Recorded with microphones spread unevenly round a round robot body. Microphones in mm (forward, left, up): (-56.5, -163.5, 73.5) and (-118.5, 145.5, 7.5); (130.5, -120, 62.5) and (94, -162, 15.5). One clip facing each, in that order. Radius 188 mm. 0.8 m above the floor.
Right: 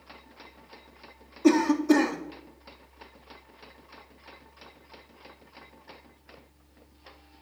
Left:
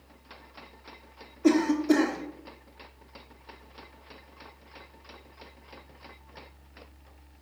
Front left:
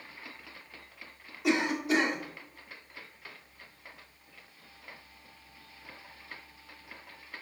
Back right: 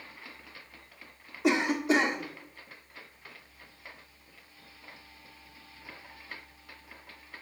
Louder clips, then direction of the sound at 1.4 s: Right 1 dB, back right 2 dB; 155° right.